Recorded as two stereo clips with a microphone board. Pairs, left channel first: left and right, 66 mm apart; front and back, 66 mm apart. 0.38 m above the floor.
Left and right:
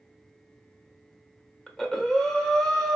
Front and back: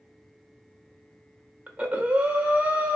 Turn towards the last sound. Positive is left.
turn(degrees=160)